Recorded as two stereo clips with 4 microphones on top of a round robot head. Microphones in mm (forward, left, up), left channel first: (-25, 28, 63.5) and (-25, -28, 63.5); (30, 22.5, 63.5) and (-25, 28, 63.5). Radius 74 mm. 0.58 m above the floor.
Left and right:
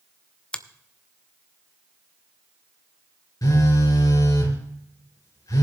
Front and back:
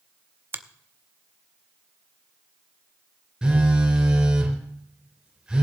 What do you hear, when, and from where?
0.5 s a finger snap: 155° left, 0.8 m
3.4 s a phone buzzing: 100° left, 4 m